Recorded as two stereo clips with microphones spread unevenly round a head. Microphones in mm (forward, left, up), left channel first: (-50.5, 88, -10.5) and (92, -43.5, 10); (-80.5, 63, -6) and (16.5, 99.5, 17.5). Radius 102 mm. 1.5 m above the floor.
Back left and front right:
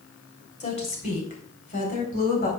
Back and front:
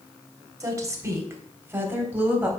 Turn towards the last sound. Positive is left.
turn(degrees=95)